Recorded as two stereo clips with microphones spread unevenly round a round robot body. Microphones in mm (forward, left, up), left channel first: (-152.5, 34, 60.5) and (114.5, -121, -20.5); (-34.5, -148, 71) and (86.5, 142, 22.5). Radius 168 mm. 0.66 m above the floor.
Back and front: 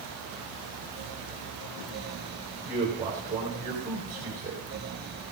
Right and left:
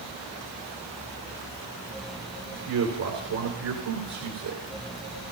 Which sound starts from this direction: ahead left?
A man speaking, at 2.6 s.